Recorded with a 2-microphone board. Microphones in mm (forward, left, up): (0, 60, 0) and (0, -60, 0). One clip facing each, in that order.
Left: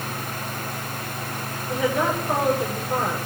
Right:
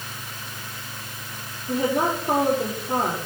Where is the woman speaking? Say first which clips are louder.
Right 1 dB; 50° right (ahead or behind), 8.5 m.